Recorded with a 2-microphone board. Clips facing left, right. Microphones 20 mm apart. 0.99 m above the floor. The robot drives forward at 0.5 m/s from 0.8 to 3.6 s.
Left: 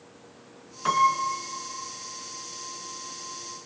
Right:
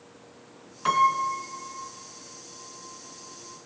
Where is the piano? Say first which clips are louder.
Even; 5° right (ahead or behind), 1.9 m; by 1.9 s 10° right (ahead or behind), 1.4 m.